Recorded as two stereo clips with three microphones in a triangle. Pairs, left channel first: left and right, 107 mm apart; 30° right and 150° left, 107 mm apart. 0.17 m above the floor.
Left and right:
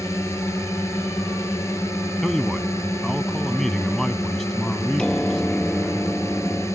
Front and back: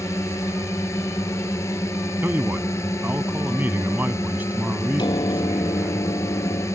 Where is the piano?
10° left.